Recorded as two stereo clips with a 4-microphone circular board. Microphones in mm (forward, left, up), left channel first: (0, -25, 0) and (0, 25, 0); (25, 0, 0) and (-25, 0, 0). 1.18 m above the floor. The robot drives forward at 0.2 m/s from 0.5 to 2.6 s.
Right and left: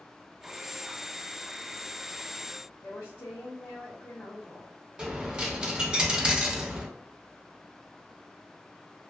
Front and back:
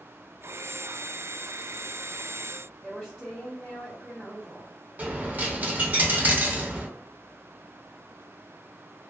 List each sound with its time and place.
2.8 s a woman speaking: 100° right, 1.1 m
5.0 s a dropped coin: 155° left, 0.5 m